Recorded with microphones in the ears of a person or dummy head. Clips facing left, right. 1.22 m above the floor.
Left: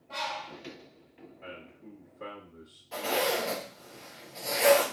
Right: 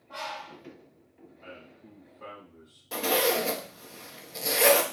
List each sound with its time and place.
0.1 s a bird: 40° left (ahead or behind), 0.8 m
1.4 s a man speaking: 55° left (ahead or behind), 1.6 m
2.9 s a zipper: 55° right (ahead or behind), 0.5 m